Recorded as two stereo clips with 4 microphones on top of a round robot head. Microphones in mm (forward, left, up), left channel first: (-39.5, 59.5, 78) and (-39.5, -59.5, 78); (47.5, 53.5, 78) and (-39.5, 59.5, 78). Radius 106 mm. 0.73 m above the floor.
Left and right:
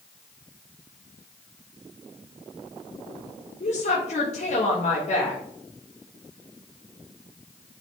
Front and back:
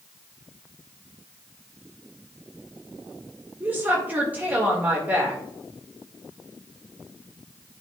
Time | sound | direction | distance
3.6 | a woman speaking | 105° left | 2.5 m